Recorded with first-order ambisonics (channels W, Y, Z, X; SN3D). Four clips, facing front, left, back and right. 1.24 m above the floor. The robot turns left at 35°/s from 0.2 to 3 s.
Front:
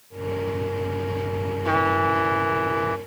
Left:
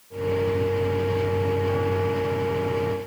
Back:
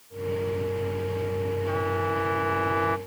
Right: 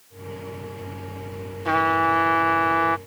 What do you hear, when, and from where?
1.6 s a trumpet: 50° right; by 3.0 s 95° right